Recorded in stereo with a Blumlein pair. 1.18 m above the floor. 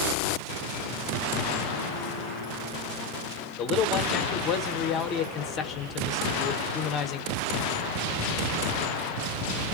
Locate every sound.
3.6 s a man speaking: 30° left, 1.0 m